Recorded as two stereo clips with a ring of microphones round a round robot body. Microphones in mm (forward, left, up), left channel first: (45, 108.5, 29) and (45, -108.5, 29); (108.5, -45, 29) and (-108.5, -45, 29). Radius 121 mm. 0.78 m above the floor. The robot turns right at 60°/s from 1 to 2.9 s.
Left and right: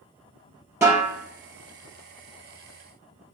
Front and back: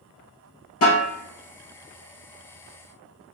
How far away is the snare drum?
About 2.5 m.